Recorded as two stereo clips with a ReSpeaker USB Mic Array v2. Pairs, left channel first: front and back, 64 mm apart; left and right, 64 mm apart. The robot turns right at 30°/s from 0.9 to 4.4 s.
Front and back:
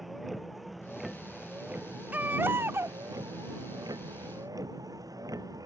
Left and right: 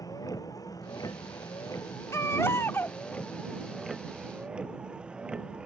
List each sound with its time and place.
0.0 s a vehicle: 90° left; by 5.7 s 165° right
2.1 s a baby crying: 120° left; by 3.0 s 145° left